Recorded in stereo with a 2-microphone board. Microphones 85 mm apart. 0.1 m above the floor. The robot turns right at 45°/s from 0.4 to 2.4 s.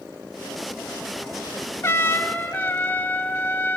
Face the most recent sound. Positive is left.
turn(degrees=25)  # may be behind; listen again after turning